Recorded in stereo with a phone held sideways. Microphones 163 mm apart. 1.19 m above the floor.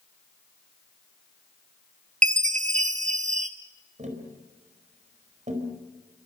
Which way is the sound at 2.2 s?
45° right (ahead or behind).